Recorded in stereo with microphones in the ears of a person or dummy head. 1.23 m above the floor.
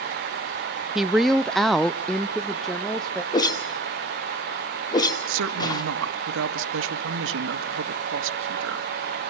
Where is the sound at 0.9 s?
Centre (ahead or behind), 0.5 m.